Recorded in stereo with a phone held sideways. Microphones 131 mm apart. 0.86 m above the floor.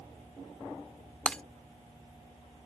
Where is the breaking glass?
10° left (ahead or behind).